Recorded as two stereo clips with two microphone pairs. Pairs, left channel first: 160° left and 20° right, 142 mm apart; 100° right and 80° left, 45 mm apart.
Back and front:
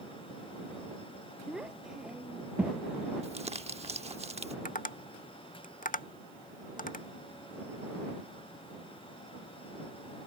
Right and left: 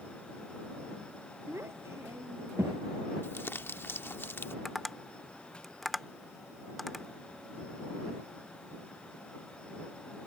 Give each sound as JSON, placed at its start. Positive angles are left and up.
{"t": 1.5, "sound": "a child speaking", "azimuth_deg": 65}
{"t": 3.2, "sound": "crumpling", "azimuth_deg": -60}
{"t": 4.7, "sound": "tapping", "azimuth_deg": 175}